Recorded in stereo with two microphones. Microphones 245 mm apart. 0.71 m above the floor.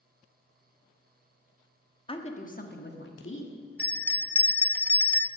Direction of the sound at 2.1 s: 20° left (ahead or behind).